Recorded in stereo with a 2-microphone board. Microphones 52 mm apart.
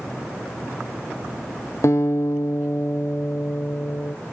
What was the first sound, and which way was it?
A guitar, 65° left (ahead or behind).